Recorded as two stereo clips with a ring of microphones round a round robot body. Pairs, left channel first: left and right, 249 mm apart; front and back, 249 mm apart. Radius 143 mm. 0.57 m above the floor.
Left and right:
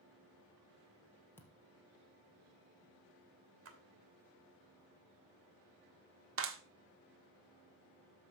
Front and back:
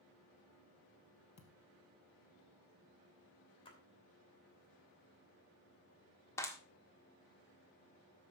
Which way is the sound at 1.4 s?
10° left.